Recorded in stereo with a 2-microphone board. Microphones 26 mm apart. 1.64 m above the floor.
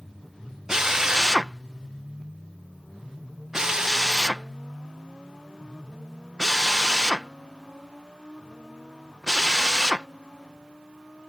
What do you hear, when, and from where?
0.7 s a drill: 25° right (ahead or behind)